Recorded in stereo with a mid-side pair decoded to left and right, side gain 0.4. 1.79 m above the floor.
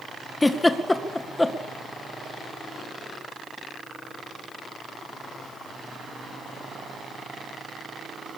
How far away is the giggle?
About 2 m.